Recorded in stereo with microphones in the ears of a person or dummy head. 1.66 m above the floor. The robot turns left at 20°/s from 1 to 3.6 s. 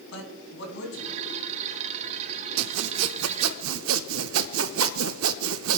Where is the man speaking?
65° left (ahead or behind), 3 m; by 1.2 s 70° left (ahead or behind), 3 m.